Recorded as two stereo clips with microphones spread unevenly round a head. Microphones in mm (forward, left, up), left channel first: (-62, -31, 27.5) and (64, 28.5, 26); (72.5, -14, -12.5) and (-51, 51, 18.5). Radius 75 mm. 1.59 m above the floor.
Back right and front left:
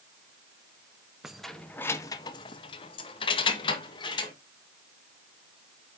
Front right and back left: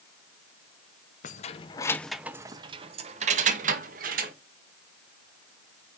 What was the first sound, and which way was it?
Keys jangling, 60° right.